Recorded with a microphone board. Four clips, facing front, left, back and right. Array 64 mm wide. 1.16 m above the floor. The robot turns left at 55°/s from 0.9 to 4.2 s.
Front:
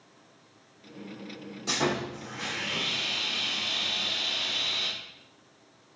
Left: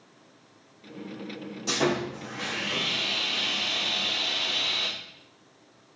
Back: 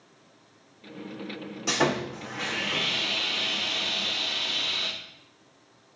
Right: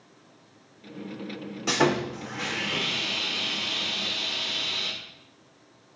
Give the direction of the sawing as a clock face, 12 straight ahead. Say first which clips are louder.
Right 3 dB, back 3 dB; 4 o'clock.